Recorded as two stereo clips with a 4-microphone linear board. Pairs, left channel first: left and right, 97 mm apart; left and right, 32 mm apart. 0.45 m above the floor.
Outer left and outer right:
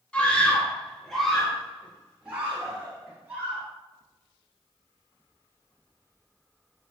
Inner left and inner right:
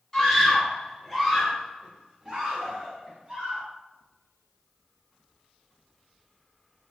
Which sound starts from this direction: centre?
A scream, at 0.1 s.